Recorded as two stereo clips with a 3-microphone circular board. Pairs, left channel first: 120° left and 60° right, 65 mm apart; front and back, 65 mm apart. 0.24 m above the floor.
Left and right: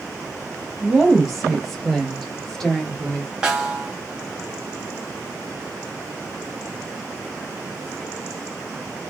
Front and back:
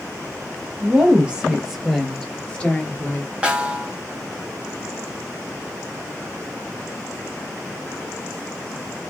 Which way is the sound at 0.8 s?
140° right.